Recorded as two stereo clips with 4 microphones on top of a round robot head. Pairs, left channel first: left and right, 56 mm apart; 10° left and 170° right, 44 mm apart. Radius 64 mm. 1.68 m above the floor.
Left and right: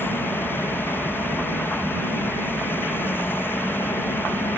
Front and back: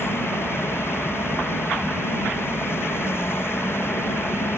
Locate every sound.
0.0 s an insect: 40° left